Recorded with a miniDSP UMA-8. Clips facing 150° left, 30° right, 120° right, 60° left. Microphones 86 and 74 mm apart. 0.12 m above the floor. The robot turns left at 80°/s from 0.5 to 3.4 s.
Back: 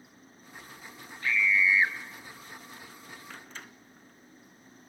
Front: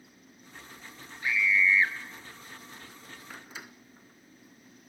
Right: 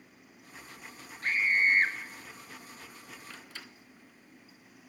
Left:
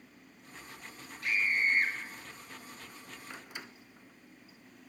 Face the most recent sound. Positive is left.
turn(degrees=35)